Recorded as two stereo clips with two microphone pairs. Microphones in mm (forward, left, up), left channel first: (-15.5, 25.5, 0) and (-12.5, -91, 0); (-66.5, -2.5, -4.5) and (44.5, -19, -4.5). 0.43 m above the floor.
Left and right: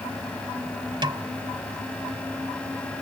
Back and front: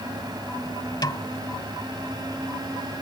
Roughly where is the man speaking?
I don't hear a man speaking.